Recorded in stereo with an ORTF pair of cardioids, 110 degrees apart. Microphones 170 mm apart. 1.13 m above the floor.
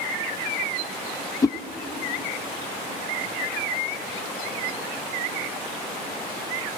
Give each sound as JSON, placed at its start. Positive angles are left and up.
{"t": 1.4, "sound": "a whoosh", "azimuth_deg": 20, "distance_m": 1.1}